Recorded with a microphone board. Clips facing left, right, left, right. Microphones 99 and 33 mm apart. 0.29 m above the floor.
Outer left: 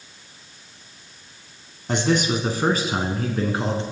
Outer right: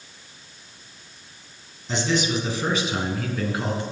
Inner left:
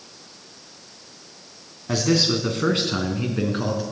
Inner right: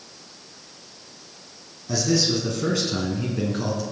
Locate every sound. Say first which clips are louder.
1.9 s a man speaking: outer left 3 dB, inner left 2 dB; 55° left (ahead or behind), 3 m; by 3.8 s 30° left (ahead or behind), 4 m